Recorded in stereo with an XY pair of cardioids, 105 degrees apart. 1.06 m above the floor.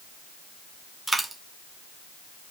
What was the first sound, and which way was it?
A dropped coin, 20° right.